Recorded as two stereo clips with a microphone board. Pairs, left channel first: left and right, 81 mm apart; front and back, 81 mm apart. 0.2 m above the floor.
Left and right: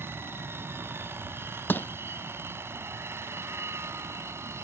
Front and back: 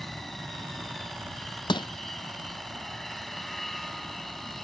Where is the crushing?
25° left.